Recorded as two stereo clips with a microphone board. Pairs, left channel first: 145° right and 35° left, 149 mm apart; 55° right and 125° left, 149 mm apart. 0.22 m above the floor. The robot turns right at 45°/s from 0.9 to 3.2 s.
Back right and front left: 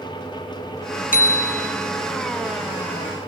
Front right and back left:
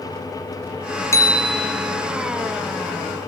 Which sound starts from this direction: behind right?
A bicycle bell, at 1.1 s.